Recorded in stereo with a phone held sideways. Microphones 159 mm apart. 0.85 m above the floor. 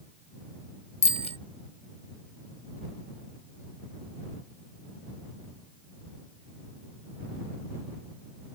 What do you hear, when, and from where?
1.0 s a bicycle bell: 40° left (ahead or behind)